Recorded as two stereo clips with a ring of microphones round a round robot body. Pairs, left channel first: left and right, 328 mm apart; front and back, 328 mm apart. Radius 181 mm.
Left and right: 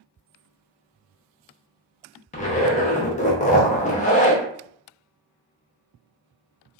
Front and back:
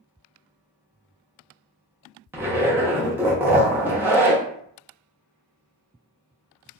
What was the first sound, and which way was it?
A zipper, 105° left.